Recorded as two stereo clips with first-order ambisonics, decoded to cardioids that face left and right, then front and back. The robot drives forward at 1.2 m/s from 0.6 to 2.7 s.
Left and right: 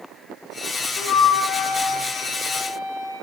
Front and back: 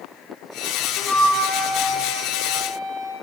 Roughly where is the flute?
Ahead left.